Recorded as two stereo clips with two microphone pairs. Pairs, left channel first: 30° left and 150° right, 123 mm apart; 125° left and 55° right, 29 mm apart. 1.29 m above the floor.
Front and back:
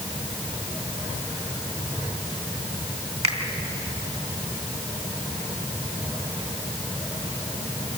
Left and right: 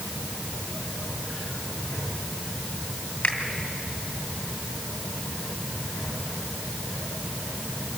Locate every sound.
3.2 s a finger snap: 170° left, 2.5 m